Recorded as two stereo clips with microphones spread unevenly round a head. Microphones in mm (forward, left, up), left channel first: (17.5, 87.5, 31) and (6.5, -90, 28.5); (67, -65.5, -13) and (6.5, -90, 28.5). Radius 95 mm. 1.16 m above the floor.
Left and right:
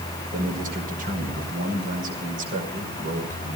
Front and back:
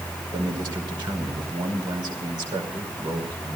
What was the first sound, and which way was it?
A man speaking, 145° right.